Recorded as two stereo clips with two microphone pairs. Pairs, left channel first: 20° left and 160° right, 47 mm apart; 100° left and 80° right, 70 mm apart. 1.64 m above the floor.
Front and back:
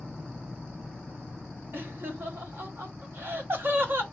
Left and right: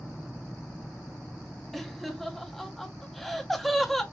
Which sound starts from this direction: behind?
Laughter, at 1.7 s.